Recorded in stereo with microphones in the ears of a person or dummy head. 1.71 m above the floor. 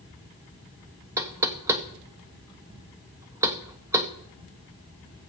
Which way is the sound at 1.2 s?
15° right (ahead or behind).